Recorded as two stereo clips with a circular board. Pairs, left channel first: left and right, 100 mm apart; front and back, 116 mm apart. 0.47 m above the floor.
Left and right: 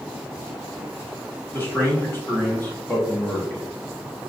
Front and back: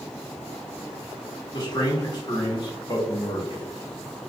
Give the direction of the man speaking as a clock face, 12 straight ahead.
11 o'clock.